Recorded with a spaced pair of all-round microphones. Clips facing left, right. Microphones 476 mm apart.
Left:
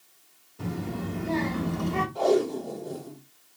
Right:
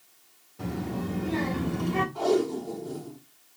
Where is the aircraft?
No aircraft in this recording.